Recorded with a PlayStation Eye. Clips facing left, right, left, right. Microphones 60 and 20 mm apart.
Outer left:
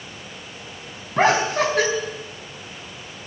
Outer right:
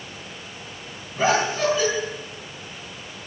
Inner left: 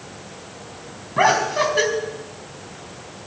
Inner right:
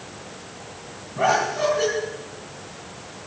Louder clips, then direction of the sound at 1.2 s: Outer left 3 dB, inner left 3 dB; 75° left (ahead or behind).